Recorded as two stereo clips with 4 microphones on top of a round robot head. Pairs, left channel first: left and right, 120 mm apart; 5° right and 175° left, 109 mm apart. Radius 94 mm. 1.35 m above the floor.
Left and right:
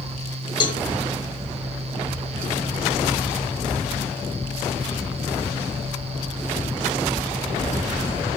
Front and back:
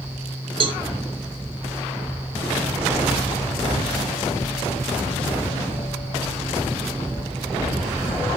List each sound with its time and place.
0.6 s a cowbell: 140° left, 1.9 m